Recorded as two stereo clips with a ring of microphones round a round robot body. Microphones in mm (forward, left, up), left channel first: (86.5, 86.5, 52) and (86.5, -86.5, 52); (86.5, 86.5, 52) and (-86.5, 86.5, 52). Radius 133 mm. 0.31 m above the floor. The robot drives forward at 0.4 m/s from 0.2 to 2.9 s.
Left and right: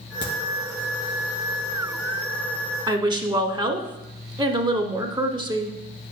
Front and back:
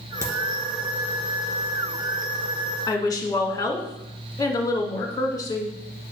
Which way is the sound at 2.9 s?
50° right.